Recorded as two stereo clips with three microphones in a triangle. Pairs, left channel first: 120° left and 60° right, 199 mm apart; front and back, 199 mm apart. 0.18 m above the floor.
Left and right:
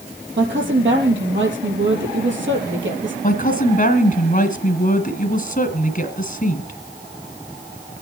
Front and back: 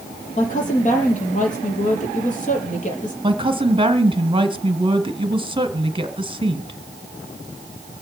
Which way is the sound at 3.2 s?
130° left.